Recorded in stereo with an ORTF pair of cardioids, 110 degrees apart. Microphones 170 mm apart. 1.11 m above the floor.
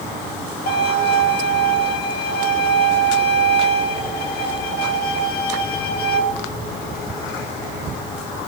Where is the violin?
70° left, 4 m.